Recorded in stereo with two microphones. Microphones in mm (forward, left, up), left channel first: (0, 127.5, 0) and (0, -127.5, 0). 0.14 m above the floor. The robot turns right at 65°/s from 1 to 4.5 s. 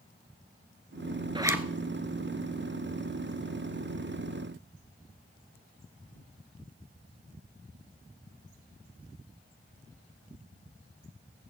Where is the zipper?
20° right (ahead or behind), 0.8 m; by 1.7 s 5° right (ahead or behind), 0.8 m.